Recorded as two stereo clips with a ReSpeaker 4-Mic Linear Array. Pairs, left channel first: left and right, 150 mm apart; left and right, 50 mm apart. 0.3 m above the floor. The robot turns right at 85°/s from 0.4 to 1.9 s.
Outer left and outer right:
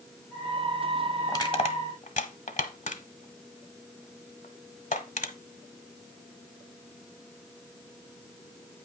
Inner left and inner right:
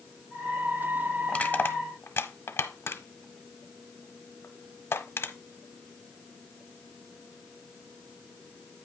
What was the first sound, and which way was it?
Crushing, 20° left (ahead or behind).